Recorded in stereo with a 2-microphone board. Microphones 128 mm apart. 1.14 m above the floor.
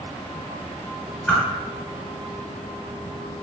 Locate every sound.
1.3 s a whoosh: 10° left (ahead or behind), 1.3 m